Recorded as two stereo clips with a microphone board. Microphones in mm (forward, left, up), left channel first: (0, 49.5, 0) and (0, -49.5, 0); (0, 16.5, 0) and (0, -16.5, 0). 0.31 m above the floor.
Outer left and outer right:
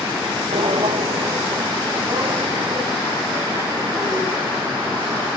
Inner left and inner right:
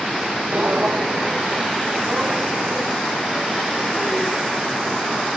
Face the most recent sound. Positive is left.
turn(degrees=-30)  # may be behind; listen again after turning